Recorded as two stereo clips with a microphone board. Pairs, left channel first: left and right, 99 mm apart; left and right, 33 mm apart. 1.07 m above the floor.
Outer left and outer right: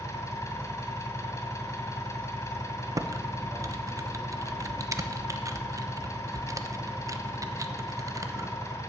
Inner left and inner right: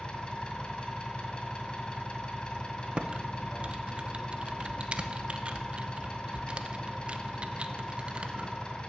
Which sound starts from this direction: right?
Typing on a keyboard, at 3.0 s.